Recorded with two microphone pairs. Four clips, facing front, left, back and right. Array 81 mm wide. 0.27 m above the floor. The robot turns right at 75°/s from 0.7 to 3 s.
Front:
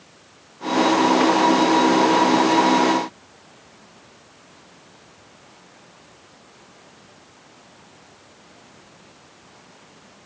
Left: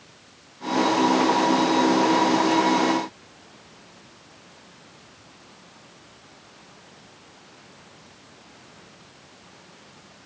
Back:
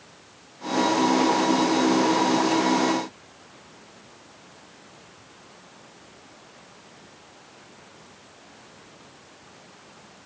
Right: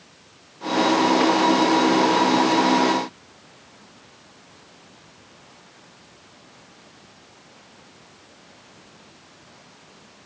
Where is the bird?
I don't hear a bird.